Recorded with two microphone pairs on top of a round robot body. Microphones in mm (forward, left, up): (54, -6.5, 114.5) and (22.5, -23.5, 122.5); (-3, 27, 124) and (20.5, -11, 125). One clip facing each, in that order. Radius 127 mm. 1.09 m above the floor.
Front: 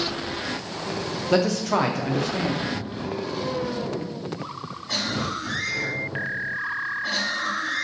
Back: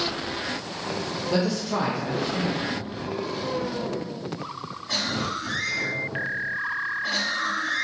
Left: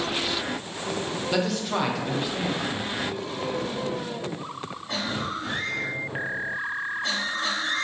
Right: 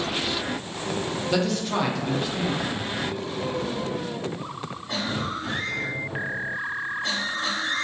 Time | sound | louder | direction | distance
1.3 | a man speaking | front 4 dB, right 1 dB | 35° left | 0.5 m